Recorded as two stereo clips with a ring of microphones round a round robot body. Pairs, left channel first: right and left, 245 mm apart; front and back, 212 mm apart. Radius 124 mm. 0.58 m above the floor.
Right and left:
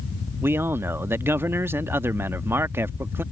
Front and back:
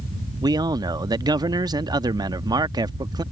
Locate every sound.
0.4 s a man speaking: 155° left